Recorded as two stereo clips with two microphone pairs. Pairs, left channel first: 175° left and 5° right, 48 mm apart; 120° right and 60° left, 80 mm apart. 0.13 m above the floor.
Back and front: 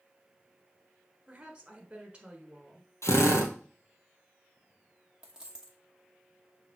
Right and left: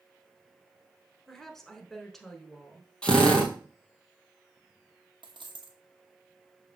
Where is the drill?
165° left, 1.5 m.